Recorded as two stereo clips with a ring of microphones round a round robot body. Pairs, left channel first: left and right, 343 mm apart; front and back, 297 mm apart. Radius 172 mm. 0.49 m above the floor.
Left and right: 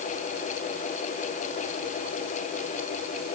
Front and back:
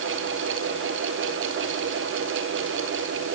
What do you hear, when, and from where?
Only background noise.